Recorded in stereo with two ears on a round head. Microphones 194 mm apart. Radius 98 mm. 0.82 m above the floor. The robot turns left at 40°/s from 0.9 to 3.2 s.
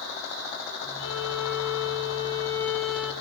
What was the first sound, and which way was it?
A violin, 75° left.